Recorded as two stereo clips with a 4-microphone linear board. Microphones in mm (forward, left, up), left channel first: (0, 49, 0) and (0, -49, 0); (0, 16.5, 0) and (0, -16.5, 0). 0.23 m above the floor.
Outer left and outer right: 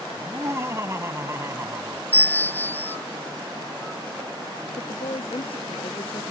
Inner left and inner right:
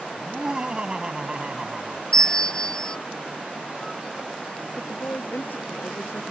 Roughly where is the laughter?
Right.